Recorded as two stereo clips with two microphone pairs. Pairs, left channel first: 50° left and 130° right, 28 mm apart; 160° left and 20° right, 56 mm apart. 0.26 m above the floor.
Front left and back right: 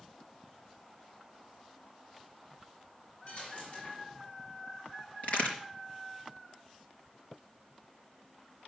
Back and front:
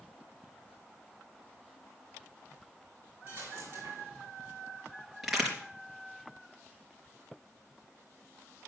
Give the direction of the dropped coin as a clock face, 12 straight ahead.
11 o'clock.